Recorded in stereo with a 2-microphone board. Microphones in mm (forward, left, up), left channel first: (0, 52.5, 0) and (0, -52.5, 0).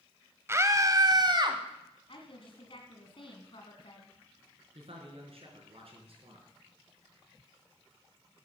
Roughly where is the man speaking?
Right.